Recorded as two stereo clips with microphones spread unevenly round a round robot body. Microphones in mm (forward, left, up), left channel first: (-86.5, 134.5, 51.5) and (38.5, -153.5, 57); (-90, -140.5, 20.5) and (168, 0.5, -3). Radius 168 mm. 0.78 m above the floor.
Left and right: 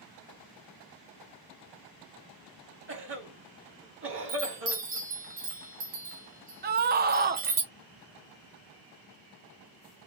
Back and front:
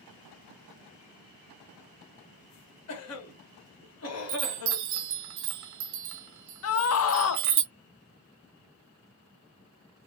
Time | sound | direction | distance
2.9 | a cough | 115° right | 1.6 m
4.3 | a chime | straight ahead | 0.8 m
6.6 | a scream | 120° right | 0.6 m